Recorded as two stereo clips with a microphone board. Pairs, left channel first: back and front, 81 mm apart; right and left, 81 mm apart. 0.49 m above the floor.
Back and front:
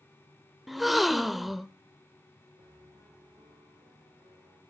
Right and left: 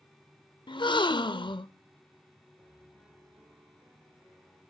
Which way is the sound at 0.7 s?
90° right.